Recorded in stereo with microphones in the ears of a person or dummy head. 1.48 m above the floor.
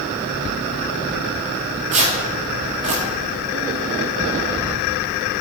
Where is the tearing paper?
30° right (ahead or behind), 1.0 m.